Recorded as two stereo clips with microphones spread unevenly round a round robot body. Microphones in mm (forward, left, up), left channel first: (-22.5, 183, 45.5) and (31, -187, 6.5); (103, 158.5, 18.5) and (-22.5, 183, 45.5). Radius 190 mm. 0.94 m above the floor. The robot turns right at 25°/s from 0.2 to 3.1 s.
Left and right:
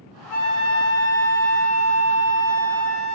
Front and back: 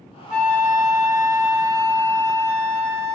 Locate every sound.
0.3 s a flute: 105° left, 0.9 m; by 3.1 s 175° left, 0.9 m